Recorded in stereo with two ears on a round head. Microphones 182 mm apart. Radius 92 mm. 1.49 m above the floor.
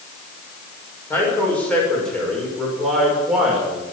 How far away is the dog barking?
I don't hear a dog barking.